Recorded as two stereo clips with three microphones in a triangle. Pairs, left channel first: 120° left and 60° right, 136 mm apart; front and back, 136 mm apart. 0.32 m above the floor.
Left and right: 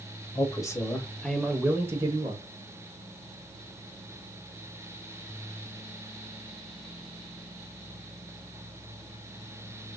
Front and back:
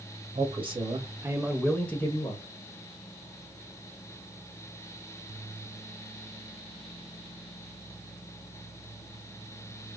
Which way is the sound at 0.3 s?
170° left.